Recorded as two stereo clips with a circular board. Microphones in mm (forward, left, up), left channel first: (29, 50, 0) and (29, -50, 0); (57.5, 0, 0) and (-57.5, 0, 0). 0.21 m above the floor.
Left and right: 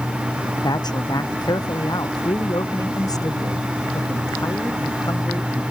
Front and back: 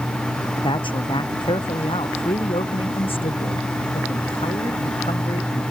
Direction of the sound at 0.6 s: 45° left.